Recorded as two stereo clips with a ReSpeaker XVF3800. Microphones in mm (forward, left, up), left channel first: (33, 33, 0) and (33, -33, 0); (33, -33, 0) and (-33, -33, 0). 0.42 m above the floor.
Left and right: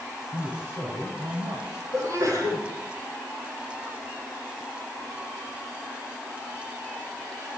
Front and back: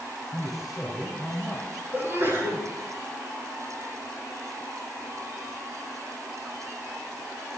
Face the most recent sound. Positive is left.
turn(degrees=-125)